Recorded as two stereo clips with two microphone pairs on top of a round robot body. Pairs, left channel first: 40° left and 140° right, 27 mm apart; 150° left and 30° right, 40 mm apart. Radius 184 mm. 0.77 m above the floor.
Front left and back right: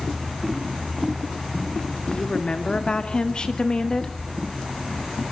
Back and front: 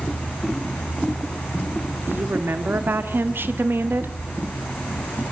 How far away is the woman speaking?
About 2 m.